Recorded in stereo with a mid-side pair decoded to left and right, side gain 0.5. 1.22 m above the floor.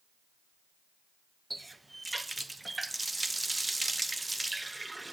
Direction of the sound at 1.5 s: 15° right.